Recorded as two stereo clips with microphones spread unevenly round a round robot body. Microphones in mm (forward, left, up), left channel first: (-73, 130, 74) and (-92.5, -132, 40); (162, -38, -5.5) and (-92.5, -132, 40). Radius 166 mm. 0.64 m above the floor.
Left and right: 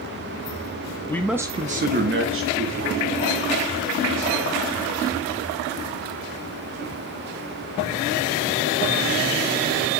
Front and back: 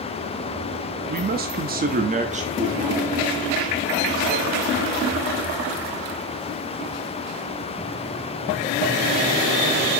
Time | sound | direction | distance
1.1 | a man speaking | 170° left | 0.6 m